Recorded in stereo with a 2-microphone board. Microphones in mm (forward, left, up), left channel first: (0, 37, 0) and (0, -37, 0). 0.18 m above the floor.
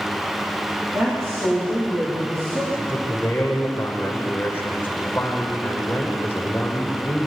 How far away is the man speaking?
About 6 m.